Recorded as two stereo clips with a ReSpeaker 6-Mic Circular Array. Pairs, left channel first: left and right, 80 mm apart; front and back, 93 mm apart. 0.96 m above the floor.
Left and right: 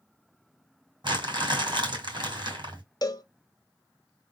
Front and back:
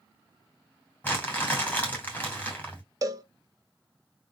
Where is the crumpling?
75° right, 3 m.